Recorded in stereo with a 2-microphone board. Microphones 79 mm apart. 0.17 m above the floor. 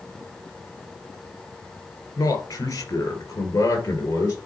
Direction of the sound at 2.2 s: 45° left (ahead or behind).